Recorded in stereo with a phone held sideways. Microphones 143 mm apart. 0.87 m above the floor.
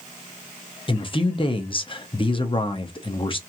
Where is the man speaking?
35° left (ahead or behind), 0.6 m.